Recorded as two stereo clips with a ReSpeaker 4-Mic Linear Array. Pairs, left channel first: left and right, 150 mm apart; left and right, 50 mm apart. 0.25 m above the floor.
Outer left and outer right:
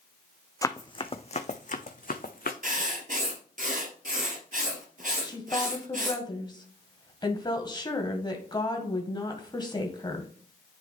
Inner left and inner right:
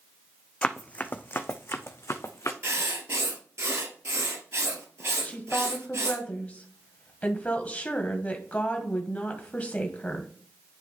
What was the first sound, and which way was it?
Running footsteps, 25° left (ahead or behind).